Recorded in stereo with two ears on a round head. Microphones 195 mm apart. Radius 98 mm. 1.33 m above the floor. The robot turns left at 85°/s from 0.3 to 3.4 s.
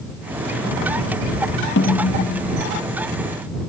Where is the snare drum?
125° left; by 2.6 s 50° left.